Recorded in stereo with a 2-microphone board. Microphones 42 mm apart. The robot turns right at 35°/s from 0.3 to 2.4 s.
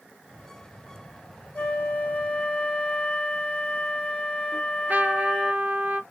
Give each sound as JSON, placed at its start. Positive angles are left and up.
{"t": 1.6, "sound": "a flute", "side_deg": 55, "distance_m": 1.0}
{"t": 4.5, "sound": "a trumpet", "side_deg": -50, "distance_m": 1.0}